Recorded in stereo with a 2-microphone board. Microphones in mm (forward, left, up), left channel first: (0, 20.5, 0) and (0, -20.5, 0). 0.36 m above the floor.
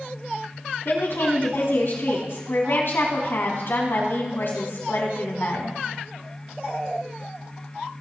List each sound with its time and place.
0.8 s a woman speaking: 60° left (ahead or behind), 3 m